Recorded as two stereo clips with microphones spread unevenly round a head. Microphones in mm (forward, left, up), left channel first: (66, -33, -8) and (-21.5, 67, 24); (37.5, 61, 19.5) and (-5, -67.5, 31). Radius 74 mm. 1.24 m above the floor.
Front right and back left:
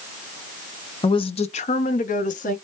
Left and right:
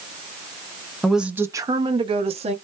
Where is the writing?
No writing in this recording.